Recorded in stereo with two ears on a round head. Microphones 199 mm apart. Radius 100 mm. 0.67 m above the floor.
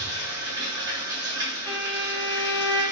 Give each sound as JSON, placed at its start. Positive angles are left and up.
{"t": 0.0, "sound": "running water", "side_deg": -20, "distance_m": 1.5}
{"t": 1.7, "sound": "a violin", "side_deg": 85, "distance_m": 1.8}